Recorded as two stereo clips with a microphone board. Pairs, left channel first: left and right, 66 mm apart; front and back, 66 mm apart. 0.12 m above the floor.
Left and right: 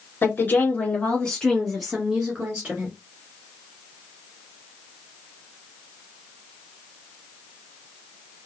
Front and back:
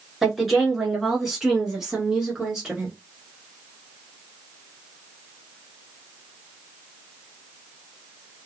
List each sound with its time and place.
0.2 s a woman speaking: 95° left, 1.6 m; by 2.9 s 115° right, 1.5 m